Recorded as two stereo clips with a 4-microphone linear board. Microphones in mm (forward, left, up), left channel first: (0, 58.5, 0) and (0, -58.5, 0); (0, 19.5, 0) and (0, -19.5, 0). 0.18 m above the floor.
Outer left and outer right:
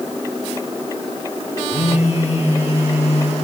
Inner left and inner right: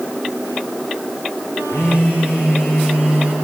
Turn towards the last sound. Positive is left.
turn(degrees=70)  # may be behind; listen again after turning